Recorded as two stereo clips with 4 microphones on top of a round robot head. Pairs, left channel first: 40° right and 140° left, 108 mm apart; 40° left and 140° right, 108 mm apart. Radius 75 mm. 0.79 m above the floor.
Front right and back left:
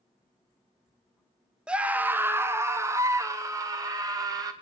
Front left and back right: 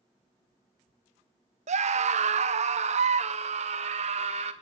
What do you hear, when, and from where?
1.7 s a scream: 140° right, 1.3 m; by 4.5 s 160° right, 4 m